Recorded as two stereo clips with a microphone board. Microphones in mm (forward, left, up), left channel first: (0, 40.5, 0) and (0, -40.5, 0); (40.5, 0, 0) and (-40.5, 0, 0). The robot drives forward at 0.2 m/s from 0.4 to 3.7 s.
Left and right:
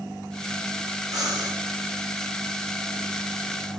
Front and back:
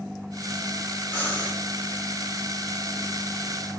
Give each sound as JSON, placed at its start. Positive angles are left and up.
{"t": 1.1, "sound": "breathing", "azimuth_deg": -70, "distance_m": 1.5}